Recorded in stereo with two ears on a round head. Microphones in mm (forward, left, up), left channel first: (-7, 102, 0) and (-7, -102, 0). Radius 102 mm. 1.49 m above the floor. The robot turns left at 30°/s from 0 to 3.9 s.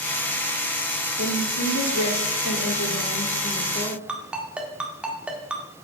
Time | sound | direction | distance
1.2 | a woman speaking | 110° left | 2.5 m
4.1 | a ringtone | 5° right (ahead or behind) | 1.2 m